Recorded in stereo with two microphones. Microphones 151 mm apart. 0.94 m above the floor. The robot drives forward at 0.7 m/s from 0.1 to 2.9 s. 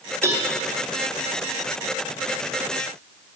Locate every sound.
0.2 s a cowbell: 15° right (ahead or behind), 1.3 m; by 0.5 s 20° right (ahead or behind), 1.2 m